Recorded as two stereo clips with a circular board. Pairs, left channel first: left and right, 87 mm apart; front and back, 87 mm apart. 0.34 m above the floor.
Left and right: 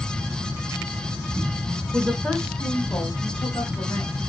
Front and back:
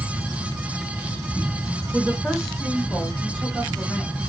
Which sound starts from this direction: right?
A woman speaking, at 1.9 s.